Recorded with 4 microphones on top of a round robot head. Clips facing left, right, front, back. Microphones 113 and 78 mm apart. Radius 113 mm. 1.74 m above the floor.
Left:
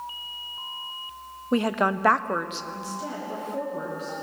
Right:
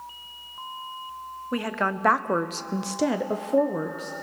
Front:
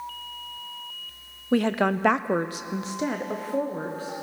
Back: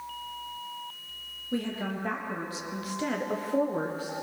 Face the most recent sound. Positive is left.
turn(degrees=-100)